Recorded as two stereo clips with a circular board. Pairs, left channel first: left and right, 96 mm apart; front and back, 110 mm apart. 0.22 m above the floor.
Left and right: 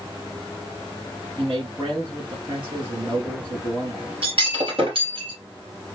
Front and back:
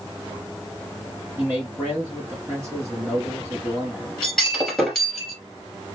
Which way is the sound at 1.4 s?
110° right.